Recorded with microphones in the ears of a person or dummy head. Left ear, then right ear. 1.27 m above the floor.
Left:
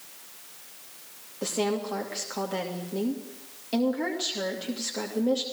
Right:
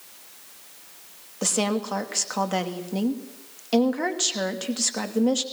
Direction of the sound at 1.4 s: 50° right (ahead or behind).